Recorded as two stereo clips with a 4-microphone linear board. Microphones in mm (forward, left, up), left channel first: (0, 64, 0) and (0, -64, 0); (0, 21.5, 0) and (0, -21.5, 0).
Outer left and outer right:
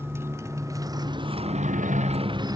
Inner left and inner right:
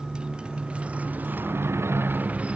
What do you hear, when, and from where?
0.0 s a motorcycle: 20° right (ahead or behind); by 2.6 s 30° right (ahead or behind)